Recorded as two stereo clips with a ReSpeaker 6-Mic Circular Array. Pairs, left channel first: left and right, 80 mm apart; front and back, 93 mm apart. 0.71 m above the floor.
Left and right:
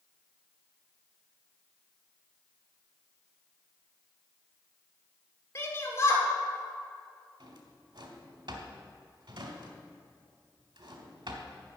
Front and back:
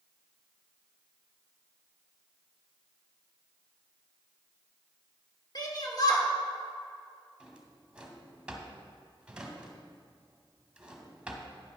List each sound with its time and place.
5.5 s a shout: 40° left, 2.5 m
7.4 s a drawer: 100° right, 1.5 m